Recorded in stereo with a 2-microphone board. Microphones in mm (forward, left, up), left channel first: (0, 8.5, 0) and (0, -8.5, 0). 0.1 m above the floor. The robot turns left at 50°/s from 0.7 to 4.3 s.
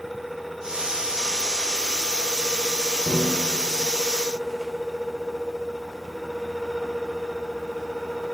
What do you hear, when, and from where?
3.1 s a snare drum: 30° right (ahead or behind), 3 m; by 3.4 s 15° right (ahead or behind), 3 m